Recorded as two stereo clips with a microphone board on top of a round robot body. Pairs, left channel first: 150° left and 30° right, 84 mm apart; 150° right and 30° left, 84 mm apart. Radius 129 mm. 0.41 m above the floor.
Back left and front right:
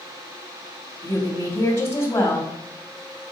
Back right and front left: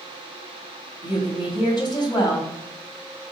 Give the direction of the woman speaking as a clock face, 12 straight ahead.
5 o'clock.